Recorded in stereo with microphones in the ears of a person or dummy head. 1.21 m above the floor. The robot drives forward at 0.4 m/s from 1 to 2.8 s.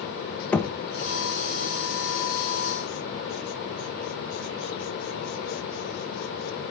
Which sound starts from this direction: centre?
Knocking, at 0.5 s.